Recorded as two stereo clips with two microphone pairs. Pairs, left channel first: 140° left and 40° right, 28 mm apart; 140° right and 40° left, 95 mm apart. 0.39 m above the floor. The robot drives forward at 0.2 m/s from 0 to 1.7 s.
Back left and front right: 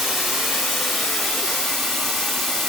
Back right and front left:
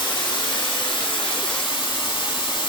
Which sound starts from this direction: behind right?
Running water, at 0.0 s.